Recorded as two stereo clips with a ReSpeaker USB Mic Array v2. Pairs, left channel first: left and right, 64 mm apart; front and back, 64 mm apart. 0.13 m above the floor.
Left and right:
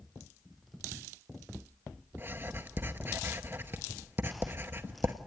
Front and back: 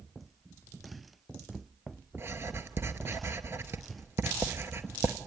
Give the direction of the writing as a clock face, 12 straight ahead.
5 o'clock.